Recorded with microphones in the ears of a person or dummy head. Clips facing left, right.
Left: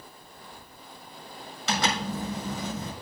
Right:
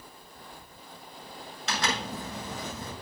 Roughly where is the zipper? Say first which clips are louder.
Left 4 dB; left.